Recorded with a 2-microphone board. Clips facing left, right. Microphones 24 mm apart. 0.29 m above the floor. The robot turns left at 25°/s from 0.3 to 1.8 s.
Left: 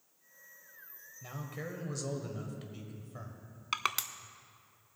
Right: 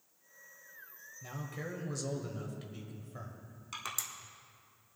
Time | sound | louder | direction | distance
1.2 | a man speaking | even | 10° left (ahead or behind) | 1.1 m
3.7 | crushing | left 7 dB | 65° left (ahead or behind) | 0.5 m